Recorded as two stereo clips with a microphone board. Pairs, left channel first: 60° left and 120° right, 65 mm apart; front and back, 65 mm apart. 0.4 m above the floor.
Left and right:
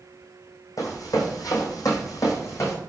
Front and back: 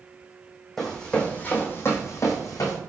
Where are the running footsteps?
85° left, 1.4 m; by 2.8 s 20° left, 1.6 m.